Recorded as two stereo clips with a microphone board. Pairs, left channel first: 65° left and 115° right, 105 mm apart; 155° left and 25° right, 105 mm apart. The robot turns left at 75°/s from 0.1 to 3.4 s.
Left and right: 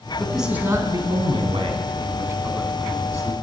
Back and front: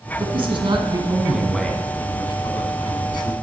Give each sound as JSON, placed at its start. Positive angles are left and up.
{"t": 0.2, "sound": "a man speaking", "azimuth_deg": -15, "distance_m": 1.8}